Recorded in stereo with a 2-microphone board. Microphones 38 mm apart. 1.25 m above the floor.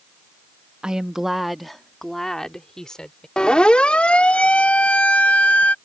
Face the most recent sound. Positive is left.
turn(degrees=45)  # may be behind; listen again after turning